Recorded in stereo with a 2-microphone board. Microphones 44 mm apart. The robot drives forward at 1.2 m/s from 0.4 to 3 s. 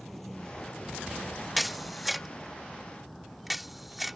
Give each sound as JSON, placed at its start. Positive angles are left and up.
{"t": 0.0, "sound": "a vehicle", "side_deg": 5}
{"t": 1.6, "sound": "a camera shutter", "side_deg": 0}